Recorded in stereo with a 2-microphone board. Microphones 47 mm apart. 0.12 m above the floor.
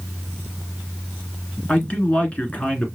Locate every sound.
1.7 s a man speaking: 30° left (ahead or behind), 1.3 m